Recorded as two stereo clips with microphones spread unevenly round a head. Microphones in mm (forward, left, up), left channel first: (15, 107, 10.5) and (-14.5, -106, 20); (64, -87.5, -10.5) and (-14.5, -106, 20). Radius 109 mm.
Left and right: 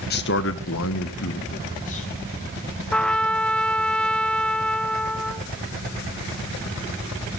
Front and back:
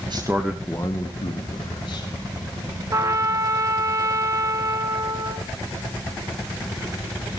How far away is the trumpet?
About 0.9 m.